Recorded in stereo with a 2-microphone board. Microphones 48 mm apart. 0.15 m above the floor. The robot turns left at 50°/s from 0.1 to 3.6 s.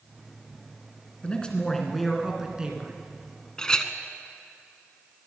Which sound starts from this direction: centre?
A clink, at 3.6 s.